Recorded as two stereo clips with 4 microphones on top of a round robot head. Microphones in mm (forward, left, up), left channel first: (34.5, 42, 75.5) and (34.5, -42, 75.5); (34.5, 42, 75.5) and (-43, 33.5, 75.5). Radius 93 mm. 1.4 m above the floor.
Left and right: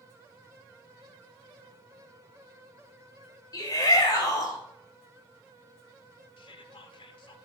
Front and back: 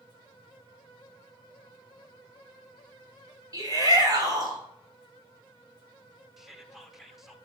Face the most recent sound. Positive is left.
turn(degrees=100)